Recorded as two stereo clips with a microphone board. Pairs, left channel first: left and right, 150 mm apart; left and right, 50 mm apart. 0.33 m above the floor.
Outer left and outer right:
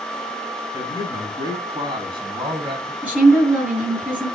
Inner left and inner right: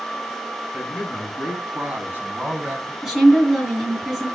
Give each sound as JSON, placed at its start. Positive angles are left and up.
{"t": 0.7, "sound": "a man speaking", "side_deg": -20, "distance_m": 3.5}
{"t": 3.0, "sound": "a woman speaking", "side_deg": -10, "distance_m": 5.5}